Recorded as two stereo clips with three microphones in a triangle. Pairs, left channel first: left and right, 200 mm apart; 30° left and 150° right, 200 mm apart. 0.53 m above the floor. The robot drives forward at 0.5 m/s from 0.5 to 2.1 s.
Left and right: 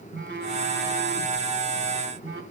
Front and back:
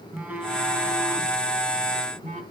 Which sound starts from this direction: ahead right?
A phone buzzing, at 0.1 s.